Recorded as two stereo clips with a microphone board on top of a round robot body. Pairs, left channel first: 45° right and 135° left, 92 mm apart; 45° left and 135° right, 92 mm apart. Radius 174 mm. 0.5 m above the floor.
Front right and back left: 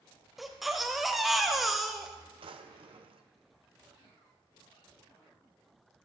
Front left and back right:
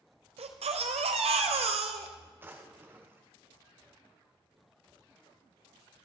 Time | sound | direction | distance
0.4 | a baby crying | 135° right | 0.8 m
2.4 | a drawer | 155° left | 0.9 m